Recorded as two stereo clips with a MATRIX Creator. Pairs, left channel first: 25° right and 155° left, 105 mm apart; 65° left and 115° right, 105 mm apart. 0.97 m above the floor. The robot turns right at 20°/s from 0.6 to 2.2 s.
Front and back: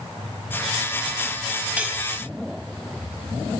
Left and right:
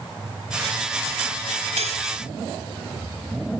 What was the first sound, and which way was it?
Cutlery clinking, 125° right.